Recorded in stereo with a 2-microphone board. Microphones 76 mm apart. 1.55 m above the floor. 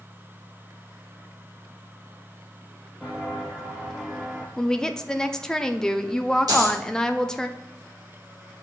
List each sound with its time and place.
3.0 s footsteps: 5° right (ahead or behind), 2 m
4.6 s a woman speaking: 10° left (ahead or behind), 0.6 m
6.5 s a dropped coin: 65° right (ahead or behind), 2 m